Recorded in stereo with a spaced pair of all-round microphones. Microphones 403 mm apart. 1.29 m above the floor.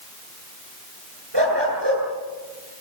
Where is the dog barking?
85° right, 8.5 m.